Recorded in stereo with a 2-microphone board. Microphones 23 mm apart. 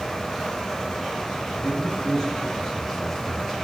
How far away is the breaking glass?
No breaking glass in this recording.